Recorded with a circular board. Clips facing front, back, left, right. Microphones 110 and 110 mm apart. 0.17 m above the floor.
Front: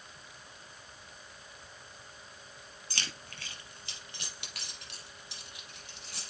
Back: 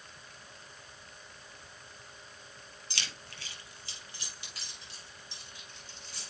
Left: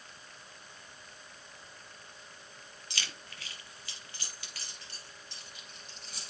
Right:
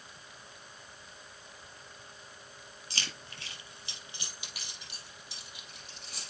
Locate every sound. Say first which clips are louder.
2.9 s keys jangling: front 2 dB, right 1 dB; 40° right, 2.5 m; by 6.3 s straight ahead, 3.5 m